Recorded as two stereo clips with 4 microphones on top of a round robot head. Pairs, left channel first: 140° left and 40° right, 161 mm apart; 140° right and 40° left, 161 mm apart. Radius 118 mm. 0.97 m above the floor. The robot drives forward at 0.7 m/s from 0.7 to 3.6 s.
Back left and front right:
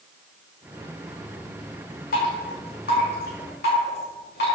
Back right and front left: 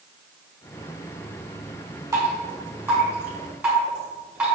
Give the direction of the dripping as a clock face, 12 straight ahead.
8 o'clock.